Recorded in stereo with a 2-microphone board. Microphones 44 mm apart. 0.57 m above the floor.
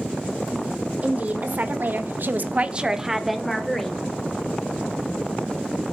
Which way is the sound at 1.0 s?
40° right (ahead or behind).